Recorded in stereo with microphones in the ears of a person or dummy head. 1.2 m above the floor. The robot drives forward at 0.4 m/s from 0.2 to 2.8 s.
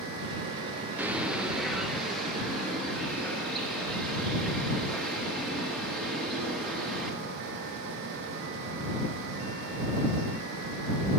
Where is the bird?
15° right (ahead or behind), 0.5 m; by 7.2 s 5° right (ahead or behind), 1.2 m.